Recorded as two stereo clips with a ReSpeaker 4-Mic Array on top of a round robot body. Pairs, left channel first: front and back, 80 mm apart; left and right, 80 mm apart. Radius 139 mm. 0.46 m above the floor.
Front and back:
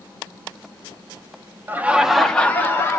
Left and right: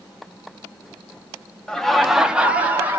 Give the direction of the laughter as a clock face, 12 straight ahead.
7 o'clock.